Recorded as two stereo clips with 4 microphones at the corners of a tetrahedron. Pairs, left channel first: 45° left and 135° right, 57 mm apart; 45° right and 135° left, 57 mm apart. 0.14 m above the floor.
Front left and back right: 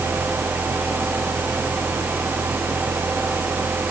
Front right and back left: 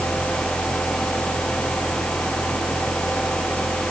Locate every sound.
Only background noise.